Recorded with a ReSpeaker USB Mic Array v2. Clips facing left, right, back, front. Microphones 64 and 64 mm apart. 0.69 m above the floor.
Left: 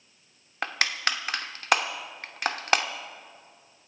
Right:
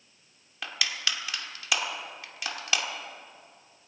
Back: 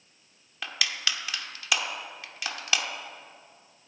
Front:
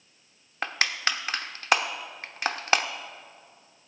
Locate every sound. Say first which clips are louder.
0.6 s crushing: left 5 dB, front 4 dB; 45° left, 0.8 m